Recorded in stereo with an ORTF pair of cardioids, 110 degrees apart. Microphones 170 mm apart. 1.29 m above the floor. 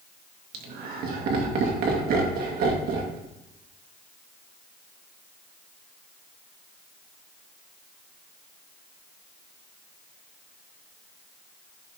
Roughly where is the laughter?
Ahead right.